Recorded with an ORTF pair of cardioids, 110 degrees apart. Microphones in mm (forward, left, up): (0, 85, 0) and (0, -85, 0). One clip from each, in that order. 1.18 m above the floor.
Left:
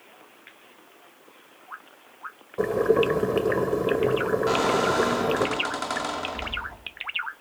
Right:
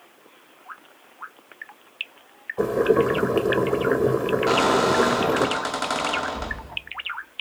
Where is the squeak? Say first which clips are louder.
Right 4 dB; 20° right, 1.3 m.